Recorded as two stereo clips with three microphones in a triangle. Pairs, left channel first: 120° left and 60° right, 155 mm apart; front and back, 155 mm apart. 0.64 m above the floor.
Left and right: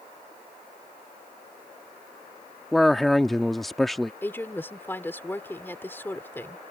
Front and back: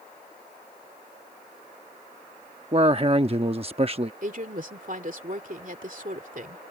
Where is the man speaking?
150° right.